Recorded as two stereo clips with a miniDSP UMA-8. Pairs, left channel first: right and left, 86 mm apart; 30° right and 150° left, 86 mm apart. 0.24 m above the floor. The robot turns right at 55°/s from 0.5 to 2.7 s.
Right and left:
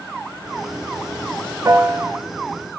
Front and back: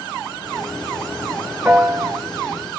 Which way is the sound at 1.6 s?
90° left.